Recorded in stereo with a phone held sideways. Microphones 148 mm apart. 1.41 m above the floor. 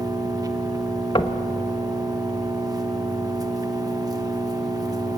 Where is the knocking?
30° left (ahead or behind), 1.2 m.